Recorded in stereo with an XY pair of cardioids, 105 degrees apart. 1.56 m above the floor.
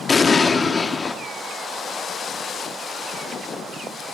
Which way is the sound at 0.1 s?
35° left.